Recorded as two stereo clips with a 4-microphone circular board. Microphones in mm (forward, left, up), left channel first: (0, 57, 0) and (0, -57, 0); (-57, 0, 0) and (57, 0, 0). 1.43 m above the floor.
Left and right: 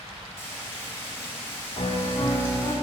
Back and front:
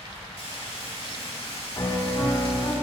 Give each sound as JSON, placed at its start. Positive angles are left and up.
{"t": 0.4, "sound": "frying", "azimuth_deg": 155, "distance_m": 1.8}
{"t": 1.8, "sound": "a piano", "azimuth_deg": 125, "distance_m": 0.6}